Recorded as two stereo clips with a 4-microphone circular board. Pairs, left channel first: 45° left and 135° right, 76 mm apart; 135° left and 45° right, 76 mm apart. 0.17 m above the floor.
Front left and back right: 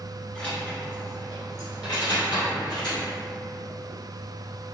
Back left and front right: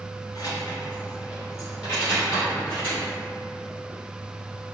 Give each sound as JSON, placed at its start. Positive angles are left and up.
{"t": 0.3, "sound": "keys jangling", "azimuth_deg": 120, "distance_m": 1.7}